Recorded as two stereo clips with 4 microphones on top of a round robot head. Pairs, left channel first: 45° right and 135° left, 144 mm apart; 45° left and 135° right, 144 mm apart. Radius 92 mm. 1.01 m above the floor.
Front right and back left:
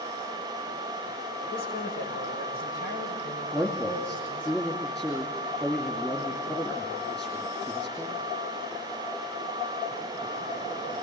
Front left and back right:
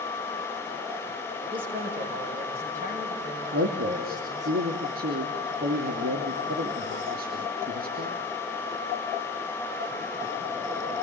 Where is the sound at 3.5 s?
125° right, 2.5 m.